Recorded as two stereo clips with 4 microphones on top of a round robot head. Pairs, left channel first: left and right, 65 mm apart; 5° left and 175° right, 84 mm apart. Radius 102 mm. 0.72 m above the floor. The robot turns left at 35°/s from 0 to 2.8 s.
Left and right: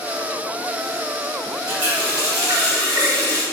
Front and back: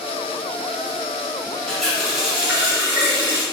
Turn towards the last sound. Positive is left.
turn(degrees=-110)